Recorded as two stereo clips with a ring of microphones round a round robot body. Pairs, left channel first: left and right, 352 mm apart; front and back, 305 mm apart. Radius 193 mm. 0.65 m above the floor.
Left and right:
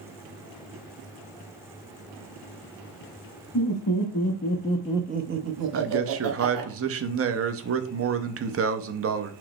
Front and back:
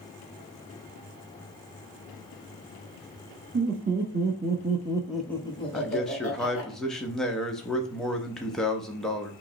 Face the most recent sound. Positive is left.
turn(degrees=-85)